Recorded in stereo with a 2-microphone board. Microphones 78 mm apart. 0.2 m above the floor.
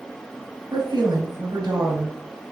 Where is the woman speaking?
70° right (ahead or behind), 3.5 m.